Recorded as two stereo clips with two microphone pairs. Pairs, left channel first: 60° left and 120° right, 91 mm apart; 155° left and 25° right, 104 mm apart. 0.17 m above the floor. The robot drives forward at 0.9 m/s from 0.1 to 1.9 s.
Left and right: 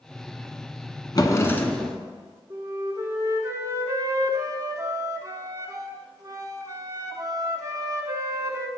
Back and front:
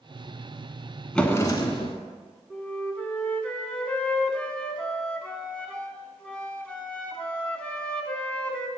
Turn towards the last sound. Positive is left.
turn(degrees=-140)